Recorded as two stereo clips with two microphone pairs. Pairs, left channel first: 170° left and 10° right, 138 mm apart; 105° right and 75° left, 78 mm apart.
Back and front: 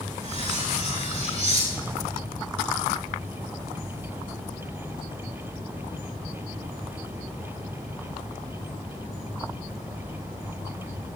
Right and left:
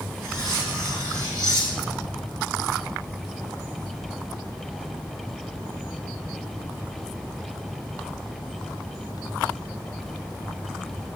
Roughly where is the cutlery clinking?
Ahead left.